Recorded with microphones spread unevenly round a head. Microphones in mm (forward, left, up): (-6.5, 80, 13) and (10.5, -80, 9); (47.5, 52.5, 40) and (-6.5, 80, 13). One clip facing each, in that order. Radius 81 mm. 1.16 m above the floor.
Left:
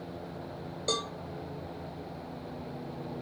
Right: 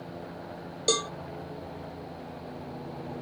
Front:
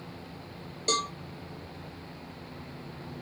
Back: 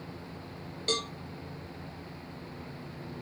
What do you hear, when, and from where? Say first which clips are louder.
0.9 s a cowbell: right 5 dB, front 4 dB; 115° right, 0.5 m